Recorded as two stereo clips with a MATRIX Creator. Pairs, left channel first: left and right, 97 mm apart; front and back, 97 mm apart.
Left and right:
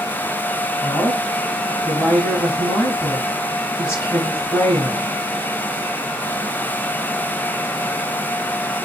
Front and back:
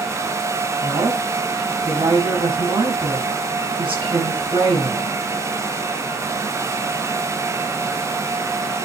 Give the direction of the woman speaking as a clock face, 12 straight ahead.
7 o'clock.